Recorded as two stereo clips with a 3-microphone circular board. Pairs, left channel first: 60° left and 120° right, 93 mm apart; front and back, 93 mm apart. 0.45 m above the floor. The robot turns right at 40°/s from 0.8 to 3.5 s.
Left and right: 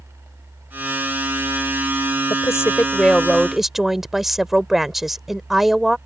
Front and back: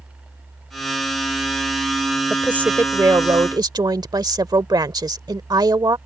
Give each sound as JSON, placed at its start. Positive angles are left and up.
{"t": 2.3, "sound": "a woman speaking", "azimuth_deg": 105}